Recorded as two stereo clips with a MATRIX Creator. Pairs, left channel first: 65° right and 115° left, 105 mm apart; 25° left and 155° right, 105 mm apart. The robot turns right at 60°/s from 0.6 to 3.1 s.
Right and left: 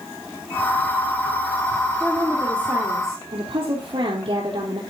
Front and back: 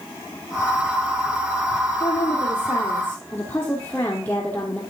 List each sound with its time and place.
2.0 s a woman speaking: 30° left, 3 m; by 4.8 s 95° left, 3 m